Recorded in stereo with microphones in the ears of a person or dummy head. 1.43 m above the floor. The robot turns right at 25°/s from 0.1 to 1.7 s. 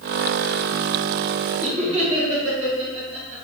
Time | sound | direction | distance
1.6 | laughter | 40° right (ahead or behind) | 1.9 m